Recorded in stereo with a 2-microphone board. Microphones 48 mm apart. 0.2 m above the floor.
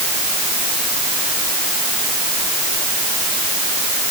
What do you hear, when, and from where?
Only background noise.